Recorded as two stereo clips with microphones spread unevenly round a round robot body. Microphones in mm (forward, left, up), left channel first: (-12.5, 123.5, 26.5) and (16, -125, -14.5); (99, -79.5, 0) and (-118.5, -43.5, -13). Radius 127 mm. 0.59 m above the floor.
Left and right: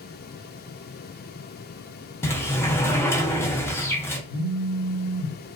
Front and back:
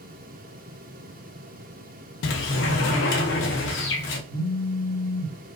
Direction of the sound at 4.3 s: 40° right.